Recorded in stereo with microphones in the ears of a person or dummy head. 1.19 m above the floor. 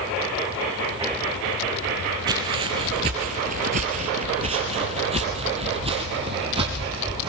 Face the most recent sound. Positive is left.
turn(degrees=-25)  # may be behind; listen again after turning